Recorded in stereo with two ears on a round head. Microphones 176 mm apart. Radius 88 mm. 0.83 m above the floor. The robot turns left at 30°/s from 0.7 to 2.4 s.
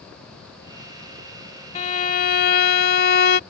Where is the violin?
35° left (ahead or behind); by 3.4 s 50° left (ahead or behind).